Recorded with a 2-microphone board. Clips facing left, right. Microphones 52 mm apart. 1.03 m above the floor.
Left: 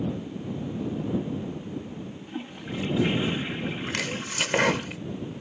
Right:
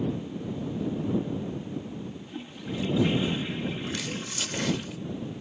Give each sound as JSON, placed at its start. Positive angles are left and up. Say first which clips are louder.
{"t": 2.3, "sound": "a toilet flushing", "louder": "left 3 dB", "side_deg": 25}
{"t": 3.9, "sound": "chopping", "louder": "left 3 dB", "side_deg": 60}